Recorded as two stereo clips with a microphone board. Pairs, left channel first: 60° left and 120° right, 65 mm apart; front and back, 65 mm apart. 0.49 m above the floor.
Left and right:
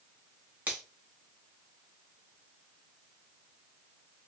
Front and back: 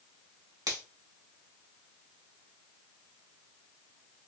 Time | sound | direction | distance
0.7 | a finger snap | straight behind | 1.6 m